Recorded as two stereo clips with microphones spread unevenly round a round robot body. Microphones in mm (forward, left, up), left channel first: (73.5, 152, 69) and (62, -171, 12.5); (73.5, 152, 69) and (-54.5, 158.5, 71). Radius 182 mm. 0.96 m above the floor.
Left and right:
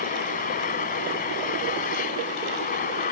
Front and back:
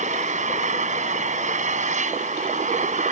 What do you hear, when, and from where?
0.0 s an engine running: 155° left